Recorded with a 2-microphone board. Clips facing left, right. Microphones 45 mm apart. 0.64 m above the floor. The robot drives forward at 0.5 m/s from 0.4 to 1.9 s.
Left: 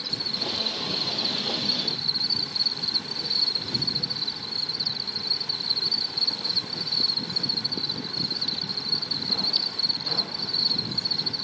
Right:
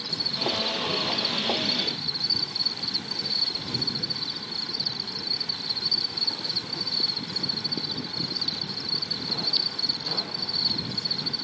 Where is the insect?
65° right (ahead or behind); by 11.4 s 60° right (ahead or behind).